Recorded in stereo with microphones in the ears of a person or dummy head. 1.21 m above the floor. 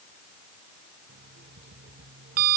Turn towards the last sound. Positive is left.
turn(degrees=-50)  # may be behind; listen again after turning